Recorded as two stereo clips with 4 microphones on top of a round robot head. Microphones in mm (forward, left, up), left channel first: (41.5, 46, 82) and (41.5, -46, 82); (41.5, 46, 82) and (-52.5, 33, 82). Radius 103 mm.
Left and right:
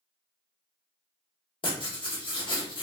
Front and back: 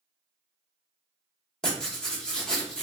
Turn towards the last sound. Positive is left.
turn(degrees=90)